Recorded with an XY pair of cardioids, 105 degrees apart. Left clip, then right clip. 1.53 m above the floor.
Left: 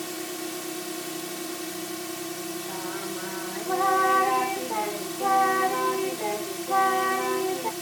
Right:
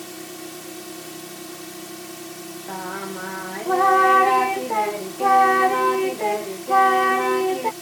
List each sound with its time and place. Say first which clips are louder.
0.0 s a drone: left 2 dB; 20° left
2.7 s singing: right 7 dB; 45° right